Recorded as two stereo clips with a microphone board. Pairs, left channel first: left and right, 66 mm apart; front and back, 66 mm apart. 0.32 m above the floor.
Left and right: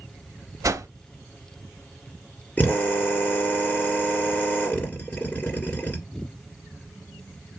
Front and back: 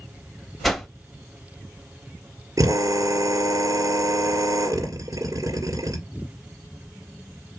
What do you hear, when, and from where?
0.6 s a whoosh: 90° right, 0.5 m
2.6 s a drill: 150° left, 1.6 m